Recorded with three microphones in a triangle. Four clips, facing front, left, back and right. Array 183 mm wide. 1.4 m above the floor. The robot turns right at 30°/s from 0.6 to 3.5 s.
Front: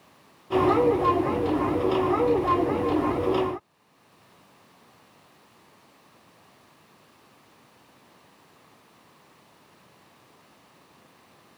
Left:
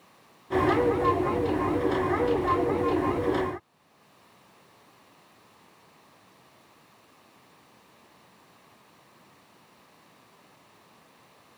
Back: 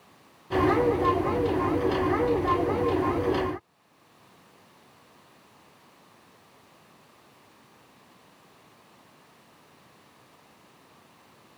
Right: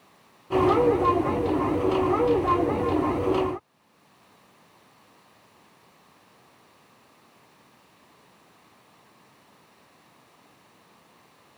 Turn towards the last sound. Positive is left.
No sound to turn to.